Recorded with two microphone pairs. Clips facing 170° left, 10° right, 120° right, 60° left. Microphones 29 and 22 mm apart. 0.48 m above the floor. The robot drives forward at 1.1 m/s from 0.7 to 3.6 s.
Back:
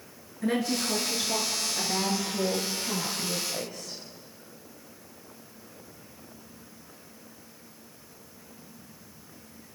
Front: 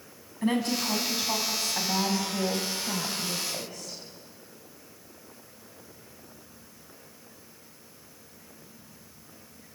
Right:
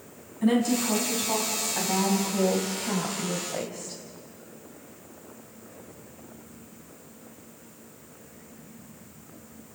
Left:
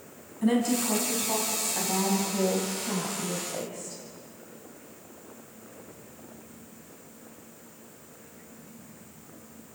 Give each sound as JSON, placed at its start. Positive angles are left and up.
{"t": 0.4, "sound": "a woman speaking", "azimuth_deg": -45, "distance_m": 4.0}